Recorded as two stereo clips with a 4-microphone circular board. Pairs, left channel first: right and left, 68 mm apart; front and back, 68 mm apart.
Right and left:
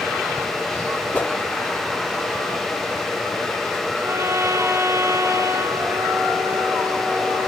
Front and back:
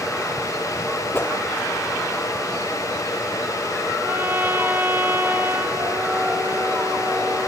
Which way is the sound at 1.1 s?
35° right.